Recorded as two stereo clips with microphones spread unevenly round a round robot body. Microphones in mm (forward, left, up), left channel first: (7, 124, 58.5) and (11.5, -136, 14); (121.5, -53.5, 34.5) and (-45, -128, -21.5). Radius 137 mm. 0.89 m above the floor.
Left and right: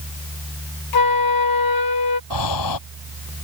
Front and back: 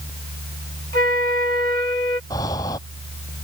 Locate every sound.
0.9 s a flute: 100° left
2.3 s breathing: 100° left